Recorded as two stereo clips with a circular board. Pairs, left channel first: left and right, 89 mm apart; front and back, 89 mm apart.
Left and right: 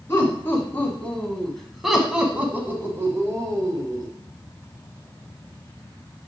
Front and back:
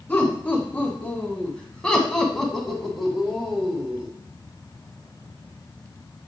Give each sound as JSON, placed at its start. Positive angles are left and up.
{"t": 0.1, "sound": "laughter", "azimuth_deg": 55, "distance_m": 1.9}